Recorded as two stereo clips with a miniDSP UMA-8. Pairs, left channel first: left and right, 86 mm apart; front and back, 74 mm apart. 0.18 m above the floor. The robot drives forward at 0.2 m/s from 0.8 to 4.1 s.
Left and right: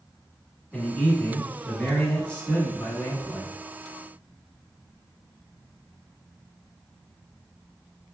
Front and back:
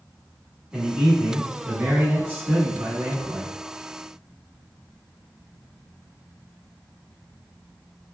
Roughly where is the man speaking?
Behind left.